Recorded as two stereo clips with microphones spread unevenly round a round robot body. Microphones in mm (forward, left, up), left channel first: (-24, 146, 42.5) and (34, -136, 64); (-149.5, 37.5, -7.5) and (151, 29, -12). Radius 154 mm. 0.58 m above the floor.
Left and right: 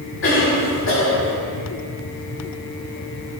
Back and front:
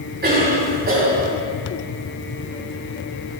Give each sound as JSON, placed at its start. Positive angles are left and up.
{"t": 0.2, "sound": "a cough", "azimuth_deg": 55, "distance_m": 5.0}